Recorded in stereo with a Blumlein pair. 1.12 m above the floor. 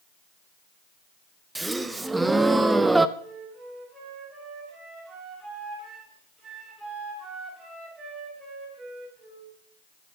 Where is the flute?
15° right, 7.5 m.